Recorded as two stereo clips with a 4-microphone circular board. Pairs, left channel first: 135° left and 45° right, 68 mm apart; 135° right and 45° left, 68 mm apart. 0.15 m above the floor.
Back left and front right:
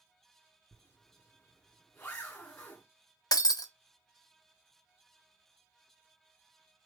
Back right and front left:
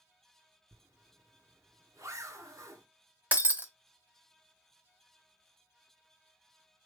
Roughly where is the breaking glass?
Behind left.